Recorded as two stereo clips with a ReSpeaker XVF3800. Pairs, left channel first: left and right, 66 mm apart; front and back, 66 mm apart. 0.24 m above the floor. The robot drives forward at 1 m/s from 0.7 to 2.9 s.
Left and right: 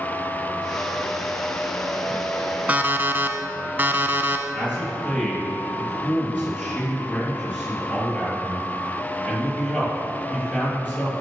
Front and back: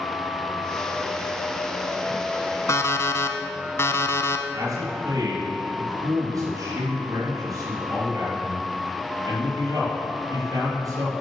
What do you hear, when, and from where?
2.7 s an alarm clock: 25° right, 1.0 m; by 4.4 s 35° right, 0.8 m
4.5 s a man speaking: 155° left, 4.5 m